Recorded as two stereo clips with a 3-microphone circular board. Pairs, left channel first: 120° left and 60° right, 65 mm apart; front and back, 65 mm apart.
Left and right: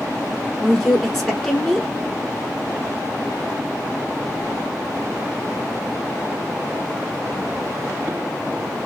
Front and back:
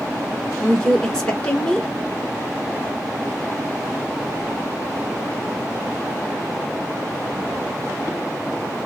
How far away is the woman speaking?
About 1.1 m.